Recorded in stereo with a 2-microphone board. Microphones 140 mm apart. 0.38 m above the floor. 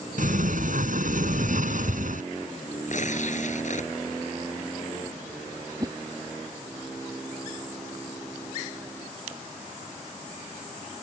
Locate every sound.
0.2 s a sliding door: 75° right (ahead or behind)
2.9 s tearing paper: 65° left (ahead or behind)
5.8 s a whoosh: 25° right (ahead or behind)